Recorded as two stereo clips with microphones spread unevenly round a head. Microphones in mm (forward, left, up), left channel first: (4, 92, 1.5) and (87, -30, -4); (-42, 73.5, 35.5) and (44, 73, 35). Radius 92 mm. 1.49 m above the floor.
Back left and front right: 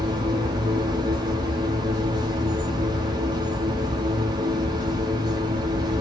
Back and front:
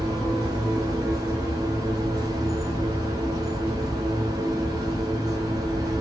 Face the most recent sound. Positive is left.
turn(degrees=-15)